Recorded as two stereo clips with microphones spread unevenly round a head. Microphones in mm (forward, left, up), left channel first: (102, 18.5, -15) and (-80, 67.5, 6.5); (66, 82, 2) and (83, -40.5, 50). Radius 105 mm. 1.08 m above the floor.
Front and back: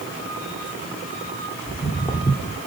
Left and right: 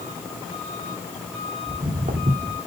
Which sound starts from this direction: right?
Footsteps, at 1.7 s.